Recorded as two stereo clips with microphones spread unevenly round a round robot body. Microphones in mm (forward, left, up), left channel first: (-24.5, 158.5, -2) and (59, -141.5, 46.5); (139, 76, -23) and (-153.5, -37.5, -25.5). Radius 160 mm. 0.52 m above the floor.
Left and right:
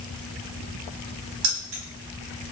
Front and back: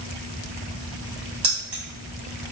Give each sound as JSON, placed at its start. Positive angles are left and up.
{"t": 1.4, "sound": "keys jangling", "azimuth_deg": -90, "distance_m": 1.7}